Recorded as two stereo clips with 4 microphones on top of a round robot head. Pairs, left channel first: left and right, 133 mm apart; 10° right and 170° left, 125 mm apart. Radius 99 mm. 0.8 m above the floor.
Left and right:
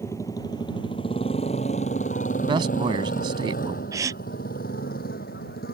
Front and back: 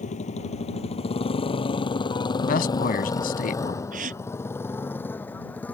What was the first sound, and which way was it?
A motorcycle, 15° left.